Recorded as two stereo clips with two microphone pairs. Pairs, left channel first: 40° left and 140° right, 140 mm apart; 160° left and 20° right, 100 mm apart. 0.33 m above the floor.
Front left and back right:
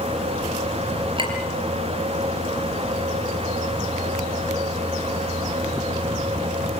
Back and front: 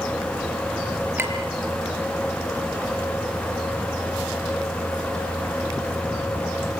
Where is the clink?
90° right, 4.5 m.